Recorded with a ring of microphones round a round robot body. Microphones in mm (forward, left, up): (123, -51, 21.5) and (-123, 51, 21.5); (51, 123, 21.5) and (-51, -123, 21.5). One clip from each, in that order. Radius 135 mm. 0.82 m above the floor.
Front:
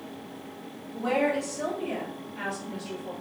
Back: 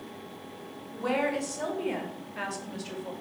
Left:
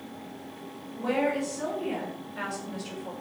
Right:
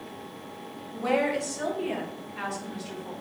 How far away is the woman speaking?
About 1.5 m.